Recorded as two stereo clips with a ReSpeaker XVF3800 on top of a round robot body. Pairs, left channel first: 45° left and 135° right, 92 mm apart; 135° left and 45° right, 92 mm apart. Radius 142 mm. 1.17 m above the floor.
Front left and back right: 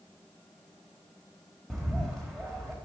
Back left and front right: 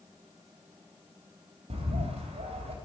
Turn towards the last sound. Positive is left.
turn(degrees=-40)